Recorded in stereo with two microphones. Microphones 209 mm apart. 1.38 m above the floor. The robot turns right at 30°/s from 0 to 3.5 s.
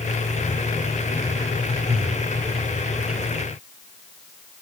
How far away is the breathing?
About 2 m.